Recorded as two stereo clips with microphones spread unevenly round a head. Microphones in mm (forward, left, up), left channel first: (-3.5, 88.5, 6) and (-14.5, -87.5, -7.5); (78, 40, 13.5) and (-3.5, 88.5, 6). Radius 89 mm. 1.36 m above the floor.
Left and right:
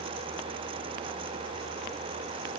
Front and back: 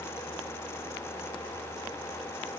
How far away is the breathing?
I don't hear breathing.